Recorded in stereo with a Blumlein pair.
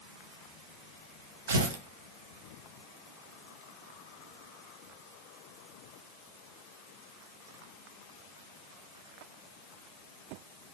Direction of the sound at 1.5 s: 70° right.